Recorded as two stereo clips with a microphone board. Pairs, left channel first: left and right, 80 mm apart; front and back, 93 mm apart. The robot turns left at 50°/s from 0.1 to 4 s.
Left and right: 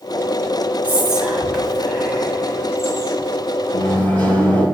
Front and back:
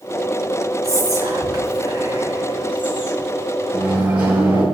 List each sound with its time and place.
0.8 s whispering: 150° right, 1.1 m; by 3.3 s 90° left, 1.1 m
3.7 s a microwave: 140° left, 1.3 m; by 4.6 s 130° left, 1.3 m